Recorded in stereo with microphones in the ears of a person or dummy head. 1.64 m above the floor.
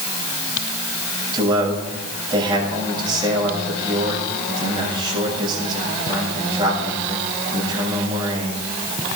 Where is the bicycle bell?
No bicycle bell in this recording.